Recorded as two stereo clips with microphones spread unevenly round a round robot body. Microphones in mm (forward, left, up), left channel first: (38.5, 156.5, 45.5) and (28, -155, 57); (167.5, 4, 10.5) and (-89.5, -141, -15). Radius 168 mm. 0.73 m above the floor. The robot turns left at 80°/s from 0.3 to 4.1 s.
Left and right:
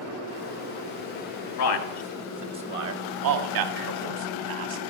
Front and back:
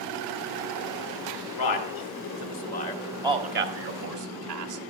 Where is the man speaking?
60° left, 1.3 m; by 4.8 s 145° right, 1.3 m.